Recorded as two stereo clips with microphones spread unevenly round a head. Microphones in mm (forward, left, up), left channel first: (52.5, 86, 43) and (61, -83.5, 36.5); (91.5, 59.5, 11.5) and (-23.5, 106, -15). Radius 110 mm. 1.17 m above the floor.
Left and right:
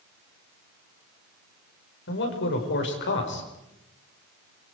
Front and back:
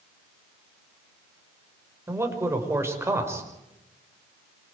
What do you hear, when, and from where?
2.1 s a man speaking: 90° left, 5.5 m